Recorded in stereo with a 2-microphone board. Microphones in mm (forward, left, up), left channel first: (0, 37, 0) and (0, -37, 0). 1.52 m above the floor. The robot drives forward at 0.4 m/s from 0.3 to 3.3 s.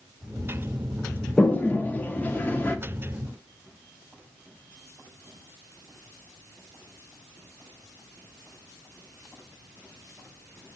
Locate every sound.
1.4 s a toilet flushing: 20° left (ahead or behind), 0.7 m